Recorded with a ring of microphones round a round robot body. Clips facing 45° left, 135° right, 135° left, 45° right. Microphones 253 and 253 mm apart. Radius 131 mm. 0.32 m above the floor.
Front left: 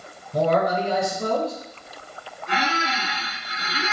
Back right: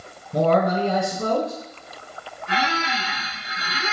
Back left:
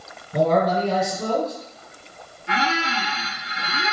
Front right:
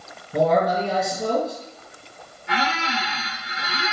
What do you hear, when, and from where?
0.3 s a man speaking: 135° right, 1.5 m
2.5 s a squeak: 115° left, 1.2 m